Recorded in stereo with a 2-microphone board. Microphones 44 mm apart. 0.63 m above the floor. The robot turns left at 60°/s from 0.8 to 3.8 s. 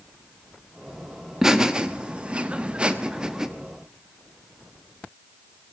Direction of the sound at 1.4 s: 10° right (ahead or behind).